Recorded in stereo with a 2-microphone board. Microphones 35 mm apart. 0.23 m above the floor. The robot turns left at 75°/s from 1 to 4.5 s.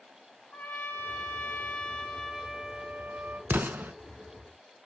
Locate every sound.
0.5 s a trumpet: 100° left, 0.9 m; by 3.4 s 80° right, 0.9 m
3.5 s an explosion: 75° right (ahead or behind), 0.6 m; by 3.9 s 60° right (ahead or behind), 0.6 m